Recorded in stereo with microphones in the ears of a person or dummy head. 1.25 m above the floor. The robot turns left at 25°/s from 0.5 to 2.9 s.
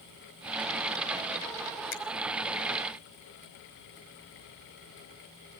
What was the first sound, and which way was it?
A finger snap, 50° left (ahead or behind).